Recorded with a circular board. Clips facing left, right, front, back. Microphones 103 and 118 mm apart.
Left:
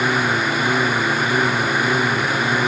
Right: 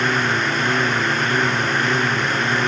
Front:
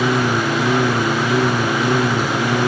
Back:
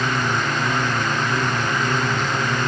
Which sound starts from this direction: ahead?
A lawn mower, at 0.0 s.